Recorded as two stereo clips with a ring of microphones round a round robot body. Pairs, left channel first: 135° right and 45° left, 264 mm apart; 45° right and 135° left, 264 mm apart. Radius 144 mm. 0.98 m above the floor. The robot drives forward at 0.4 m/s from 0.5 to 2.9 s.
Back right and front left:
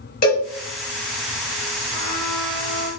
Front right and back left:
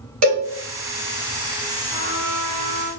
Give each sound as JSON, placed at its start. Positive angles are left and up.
{"t": 0.2, "sound": "a cowbell", "azimuth_deg": 170, "distance_m": 1.0}
{"t": 1.9, "sound": "a trumpet", "azimuth_deg": 175, "distance_m": 1.1}